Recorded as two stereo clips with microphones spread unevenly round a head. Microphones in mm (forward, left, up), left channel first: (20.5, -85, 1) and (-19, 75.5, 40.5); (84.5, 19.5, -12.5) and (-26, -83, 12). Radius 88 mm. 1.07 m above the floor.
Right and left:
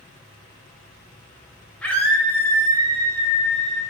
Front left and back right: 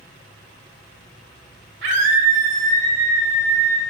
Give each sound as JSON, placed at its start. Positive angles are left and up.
{"t": 1.8, "sound": "a scream", "azimuth_deg": -160, "distance_m": 4.0}